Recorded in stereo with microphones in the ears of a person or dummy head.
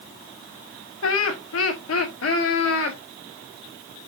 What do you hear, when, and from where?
1.0 s laughter: 80° left, 1.7 m; by 3.0 s 85° left, 3 m